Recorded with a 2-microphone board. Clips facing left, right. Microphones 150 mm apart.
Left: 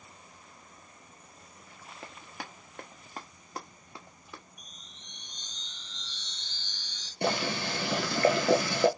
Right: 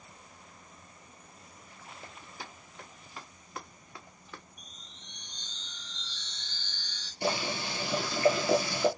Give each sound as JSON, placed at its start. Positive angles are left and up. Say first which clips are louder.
{"t": 2.0, "sound": "running footsteps", "louder": "left 4 dB", "side_deg": 80, "distance_m": 1.2}
{"t": 4.6, "sound": "a chime", "louder": "right 1 dB", "side_deg": 15, "distance_m": 2.5}
{"t": 7.2, "sound": "boiling", "louder": "left 2 dB", "side_deg": 65, "distance_m": 0.7}